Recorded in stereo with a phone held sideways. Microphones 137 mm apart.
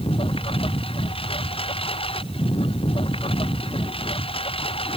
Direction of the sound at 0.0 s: 40° left (ahead or behind).